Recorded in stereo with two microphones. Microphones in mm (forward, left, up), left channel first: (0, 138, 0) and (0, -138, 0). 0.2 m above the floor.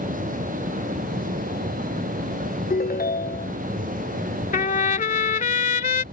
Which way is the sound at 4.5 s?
30° left (ahead or behind).